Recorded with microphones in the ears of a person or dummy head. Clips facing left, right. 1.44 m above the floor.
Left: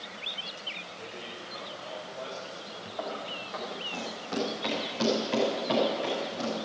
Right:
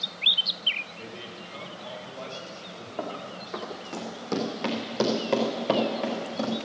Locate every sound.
1.0 s a man speaking: 50° right (ahead or behind), 4 m
3.0 s running footsteps: 50° right (ahead or behind), 3 m; by 6.5 s 70° right (ahead or behind), 4.5 m